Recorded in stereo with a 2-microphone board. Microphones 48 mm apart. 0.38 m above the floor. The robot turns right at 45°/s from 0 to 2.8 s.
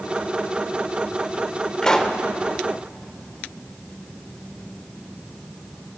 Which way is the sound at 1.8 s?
15° left (ahead or behind).